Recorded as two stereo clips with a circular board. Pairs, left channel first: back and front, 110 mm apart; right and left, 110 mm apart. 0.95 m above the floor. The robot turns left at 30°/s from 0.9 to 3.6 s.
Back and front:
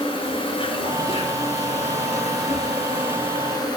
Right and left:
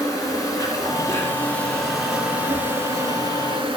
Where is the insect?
145° right, 2 m; by 3.8 s 135° left, 2 m.